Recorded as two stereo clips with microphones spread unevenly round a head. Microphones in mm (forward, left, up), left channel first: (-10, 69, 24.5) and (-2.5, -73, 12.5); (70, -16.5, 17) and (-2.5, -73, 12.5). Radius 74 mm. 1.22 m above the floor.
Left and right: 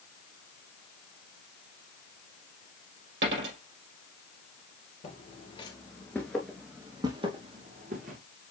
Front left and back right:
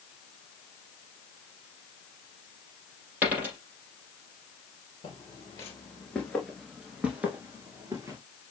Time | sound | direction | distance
3.2 | a dropped coin | 70° right | 4 m
5.0 | footsteps | 75° left | 1.6 m